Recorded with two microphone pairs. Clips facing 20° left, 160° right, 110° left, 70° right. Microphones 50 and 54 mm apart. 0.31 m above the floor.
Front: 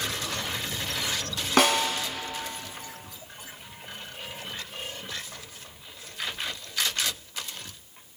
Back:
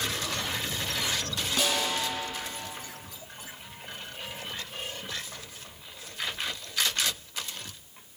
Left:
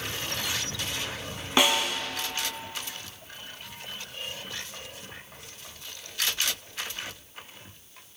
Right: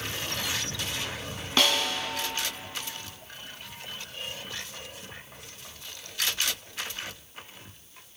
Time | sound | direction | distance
1.6 | a snare drum | 40° left | 1.1 m